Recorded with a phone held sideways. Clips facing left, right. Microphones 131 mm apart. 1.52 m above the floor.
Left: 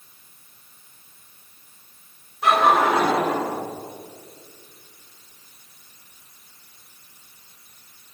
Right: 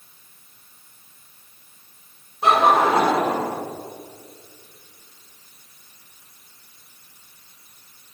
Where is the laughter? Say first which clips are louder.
Right 1 dB; 25° right (ahead or behind), 4 m; by 3.5 s 30° right (ahead or behind), 5.5 m.